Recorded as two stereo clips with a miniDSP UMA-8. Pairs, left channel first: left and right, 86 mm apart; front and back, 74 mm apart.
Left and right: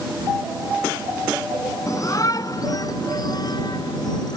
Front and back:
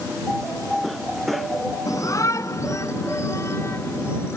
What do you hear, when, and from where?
1.9 s a shout: 40° left; by 4.4 s 55° left